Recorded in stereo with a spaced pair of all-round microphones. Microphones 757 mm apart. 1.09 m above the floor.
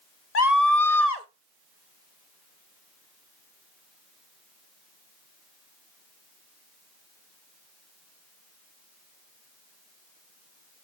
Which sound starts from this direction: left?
A scream, at 0.3 s.